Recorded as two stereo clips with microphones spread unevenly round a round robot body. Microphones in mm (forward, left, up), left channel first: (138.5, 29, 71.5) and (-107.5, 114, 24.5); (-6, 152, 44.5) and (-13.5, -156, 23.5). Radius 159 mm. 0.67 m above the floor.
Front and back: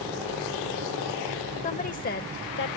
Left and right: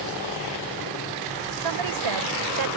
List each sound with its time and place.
1.6 s a woman speaking: 90° right; by 2.8 s 75° right